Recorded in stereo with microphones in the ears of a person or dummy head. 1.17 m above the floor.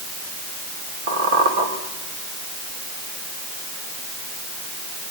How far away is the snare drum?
I don't hear a snare drum.